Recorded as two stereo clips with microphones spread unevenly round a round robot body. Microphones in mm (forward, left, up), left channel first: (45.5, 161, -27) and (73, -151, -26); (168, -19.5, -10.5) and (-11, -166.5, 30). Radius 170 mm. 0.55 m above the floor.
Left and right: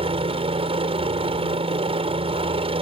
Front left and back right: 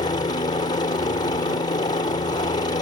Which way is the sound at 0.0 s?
20° right.